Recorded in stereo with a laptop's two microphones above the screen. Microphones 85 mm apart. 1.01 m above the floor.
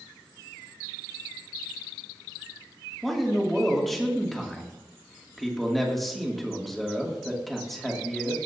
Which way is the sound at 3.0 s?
Centre (ahead or behind).